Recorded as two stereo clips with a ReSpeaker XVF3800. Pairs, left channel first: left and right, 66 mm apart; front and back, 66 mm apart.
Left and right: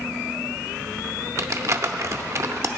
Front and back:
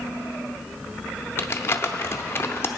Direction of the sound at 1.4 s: 50° right.